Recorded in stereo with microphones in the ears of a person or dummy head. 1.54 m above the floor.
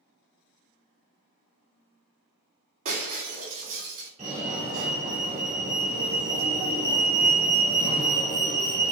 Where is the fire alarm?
30° right (ahead or behind), 1.9 m.